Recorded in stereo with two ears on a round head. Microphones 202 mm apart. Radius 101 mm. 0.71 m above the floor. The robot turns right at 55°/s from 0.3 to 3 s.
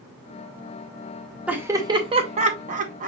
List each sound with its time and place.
1.5 s laughter: 5° right (ahead or behind), 0.9 m; by 3.1 s 35° right (ahead or behind), 0.9 m